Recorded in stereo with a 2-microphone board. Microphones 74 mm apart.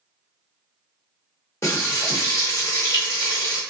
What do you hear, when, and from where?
1.6 s frying: 35° left (ahead or behind), 1.7 m